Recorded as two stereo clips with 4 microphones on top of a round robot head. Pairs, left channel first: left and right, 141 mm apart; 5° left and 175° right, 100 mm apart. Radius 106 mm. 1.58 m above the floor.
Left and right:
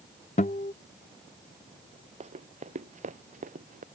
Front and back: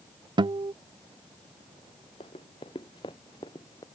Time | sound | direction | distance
0.4 | a guitar | 145° left | ?
2.2 | running footsteps | 50° right | ?